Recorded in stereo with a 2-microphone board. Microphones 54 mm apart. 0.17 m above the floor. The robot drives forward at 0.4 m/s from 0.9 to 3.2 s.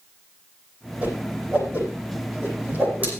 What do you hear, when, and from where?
1.0 s a whoosh: 25° right (ahead or behind), 9 m; by 3.1 s 30° right (ahead or behind), 8.5 m